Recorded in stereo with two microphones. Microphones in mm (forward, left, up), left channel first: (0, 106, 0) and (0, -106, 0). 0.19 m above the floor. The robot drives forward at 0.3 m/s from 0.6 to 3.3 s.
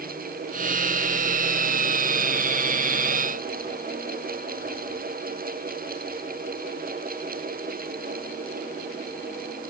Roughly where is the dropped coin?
I don't hear a dropped coin.